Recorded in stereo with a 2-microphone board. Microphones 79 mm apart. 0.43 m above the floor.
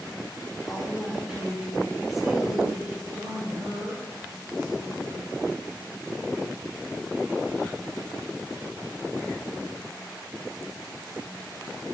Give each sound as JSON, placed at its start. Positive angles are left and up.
{"t": 0.7, "sound": "a woman speaking", "side_deg": -5, "distance_m": 3.0}
{"t": 3.0, "sound": "a woman speaking", "side_deg": -55, "distance_m": 3.0}